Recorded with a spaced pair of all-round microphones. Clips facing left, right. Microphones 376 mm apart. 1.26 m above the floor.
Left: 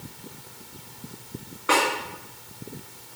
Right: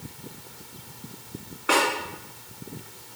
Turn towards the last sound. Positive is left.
turn(degrees=0)  # may be behind; listen again after turning